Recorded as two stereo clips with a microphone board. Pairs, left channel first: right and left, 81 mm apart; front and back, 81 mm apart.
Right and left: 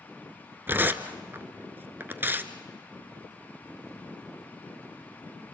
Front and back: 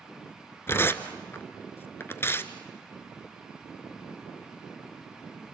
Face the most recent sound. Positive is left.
turn(degrees=40)